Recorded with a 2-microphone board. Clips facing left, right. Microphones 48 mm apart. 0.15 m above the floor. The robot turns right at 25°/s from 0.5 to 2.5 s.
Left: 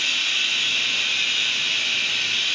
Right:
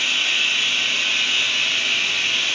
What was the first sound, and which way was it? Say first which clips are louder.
Running water: right 3 dB; 125° right.